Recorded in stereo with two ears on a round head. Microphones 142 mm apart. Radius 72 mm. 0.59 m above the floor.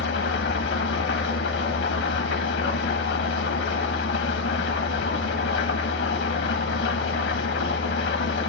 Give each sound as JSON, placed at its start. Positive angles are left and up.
{"t": 0.0, "sound": "an engine running", "side_deg": 75, "distance_m": 0.9}